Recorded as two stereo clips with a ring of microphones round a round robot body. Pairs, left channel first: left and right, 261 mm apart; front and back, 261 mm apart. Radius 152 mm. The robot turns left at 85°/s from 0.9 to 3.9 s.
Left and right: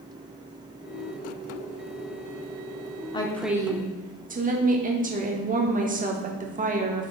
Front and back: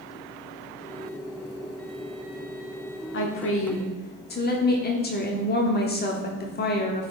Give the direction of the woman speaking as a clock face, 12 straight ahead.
11 o'clock.